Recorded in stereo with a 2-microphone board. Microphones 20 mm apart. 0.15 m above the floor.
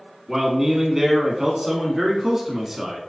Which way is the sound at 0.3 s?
20° right (ahead or behind).